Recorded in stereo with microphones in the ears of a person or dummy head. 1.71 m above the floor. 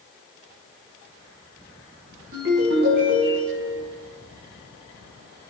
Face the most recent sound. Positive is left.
turn(degrees=-60)  # may be behind; listen again after turning